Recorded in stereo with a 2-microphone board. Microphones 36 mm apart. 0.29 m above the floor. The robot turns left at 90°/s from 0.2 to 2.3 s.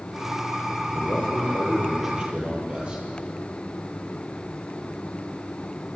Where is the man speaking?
90° left, 9 m; by 3.0 s 30° right, 9 m.